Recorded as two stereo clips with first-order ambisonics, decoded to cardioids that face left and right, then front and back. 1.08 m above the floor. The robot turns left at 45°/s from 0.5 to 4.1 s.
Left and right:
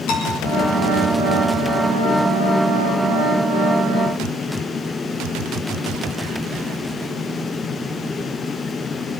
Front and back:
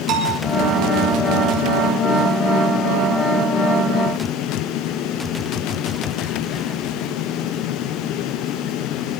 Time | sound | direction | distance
0.1 | a bell | 135° left | 4.5 m